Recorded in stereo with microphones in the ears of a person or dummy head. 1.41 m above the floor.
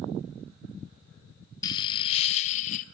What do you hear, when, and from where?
1.6 s laughter: 20° left (ahead or behind), 0.9 m; by 2.8 s 45° left (ahead or behind), 1.5 m